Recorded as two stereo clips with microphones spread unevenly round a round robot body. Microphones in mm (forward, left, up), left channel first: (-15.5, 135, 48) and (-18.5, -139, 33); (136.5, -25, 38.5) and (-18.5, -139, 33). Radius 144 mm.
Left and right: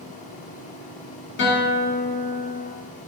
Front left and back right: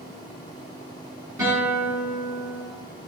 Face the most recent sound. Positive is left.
turn(degrees=140)